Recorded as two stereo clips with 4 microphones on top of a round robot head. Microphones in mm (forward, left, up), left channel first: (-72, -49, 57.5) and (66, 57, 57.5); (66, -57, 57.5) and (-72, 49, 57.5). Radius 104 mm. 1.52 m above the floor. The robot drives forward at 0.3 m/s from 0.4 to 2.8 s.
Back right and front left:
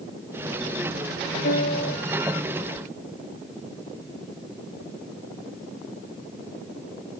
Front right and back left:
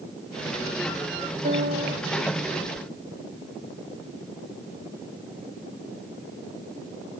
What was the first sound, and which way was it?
A piano, 175° right.